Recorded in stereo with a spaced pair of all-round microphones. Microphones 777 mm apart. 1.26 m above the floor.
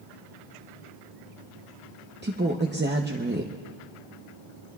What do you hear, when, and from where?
2.2 s a woman speaking: 15° right (ahead or behind), 0.7 m